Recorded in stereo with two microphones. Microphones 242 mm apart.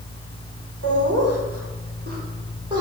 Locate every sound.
0.8 s laughter: 70° right (ahead or behind), 1.2 m; by 2.8 s 15° right (ahead or behind), 1.5 m